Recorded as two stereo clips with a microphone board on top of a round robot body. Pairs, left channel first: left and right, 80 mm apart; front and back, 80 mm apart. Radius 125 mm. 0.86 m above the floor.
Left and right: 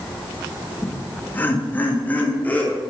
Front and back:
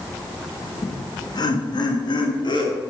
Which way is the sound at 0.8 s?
30° left.